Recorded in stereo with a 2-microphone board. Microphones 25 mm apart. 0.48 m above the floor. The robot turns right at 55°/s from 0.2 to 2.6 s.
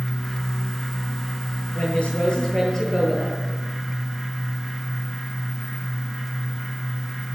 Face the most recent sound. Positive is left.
turn(degrees=160)